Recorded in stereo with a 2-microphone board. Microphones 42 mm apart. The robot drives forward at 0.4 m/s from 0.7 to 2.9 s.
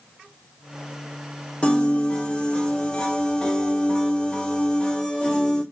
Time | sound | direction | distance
1.6 | a piano | 30° left (ahead or behind) | 1.3 m